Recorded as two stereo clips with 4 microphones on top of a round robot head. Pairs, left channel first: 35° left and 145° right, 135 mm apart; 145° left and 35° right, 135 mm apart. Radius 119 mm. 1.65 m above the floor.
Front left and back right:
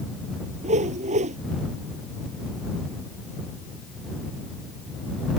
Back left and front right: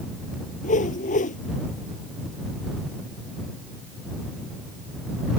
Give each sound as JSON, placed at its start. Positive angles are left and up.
{"t": 0.6, "sound": "a whoosh", "azimuth_deg": 175}